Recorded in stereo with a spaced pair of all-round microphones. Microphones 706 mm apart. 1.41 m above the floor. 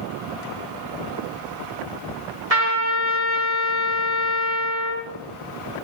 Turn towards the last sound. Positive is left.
turn(degrees=-60)  # may be behind; listen again after turning